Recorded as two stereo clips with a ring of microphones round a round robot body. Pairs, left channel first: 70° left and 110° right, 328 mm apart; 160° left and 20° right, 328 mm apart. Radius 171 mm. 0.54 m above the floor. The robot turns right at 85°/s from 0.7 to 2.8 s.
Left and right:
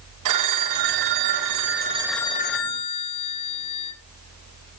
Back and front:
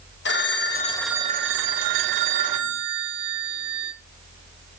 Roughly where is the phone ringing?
Behind right.